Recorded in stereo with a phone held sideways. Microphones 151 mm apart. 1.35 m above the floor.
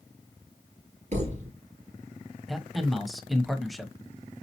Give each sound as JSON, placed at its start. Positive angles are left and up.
{"t": 1.1, "sound": "a thud", "side_deg": -50, "distance_m": 3.0}
{"t": 2.5, "sound": "a man speaking", "side_deg": 0, "distance_m": 0.7}